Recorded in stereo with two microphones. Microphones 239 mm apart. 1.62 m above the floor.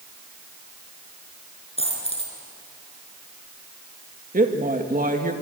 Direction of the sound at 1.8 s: 25° left (ahead or behind).